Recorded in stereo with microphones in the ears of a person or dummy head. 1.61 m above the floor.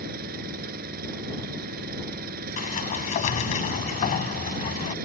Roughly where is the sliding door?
Left.